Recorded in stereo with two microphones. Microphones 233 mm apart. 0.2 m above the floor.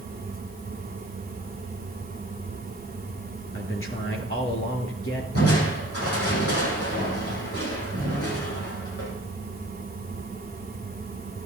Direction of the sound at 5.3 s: 80° left.